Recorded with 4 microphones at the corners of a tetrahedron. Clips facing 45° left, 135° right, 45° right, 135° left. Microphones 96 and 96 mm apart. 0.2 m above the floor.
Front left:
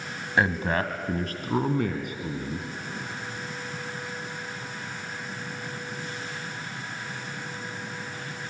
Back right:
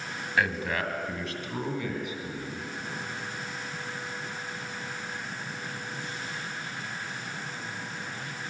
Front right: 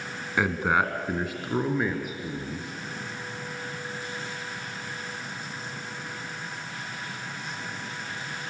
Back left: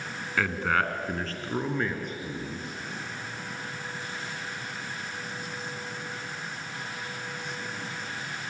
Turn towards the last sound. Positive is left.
turn(degrees=40)